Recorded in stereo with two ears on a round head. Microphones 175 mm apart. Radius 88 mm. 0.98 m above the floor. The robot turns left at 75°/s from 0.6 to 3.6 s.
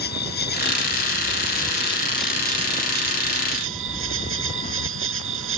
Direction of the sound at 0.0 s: 125° left.